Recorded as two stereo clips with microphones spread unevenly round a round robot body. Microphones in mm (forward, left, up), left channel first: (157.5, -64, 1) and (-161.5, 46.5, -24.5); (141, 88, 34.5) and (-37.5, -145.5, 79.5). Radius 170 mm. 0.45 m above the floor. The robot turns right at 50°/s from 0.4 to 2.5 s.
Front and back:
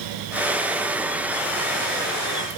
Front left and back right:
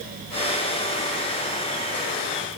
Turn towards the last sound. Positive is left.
No sound to turn to.